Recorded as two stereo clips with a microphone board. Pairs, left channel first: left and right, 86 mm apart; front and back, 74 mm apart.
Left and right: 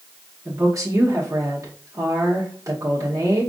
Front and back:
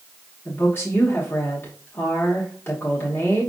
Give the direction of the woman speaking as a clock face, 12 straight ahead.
2 o'clock.